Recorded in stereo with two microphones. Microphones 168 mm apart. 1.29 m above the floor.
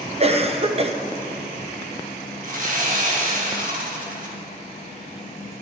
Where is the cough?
35° right (ahead or behind), 0.9 m.